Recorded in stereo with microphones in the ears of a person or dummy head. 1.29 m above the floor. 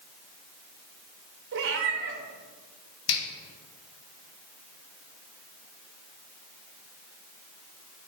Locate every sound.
1.5 s a cat meowing: 60° right (ahead or behind), 1.0 m
3.1 s a finger snap: 65° left (ahead or behind), 1.5 m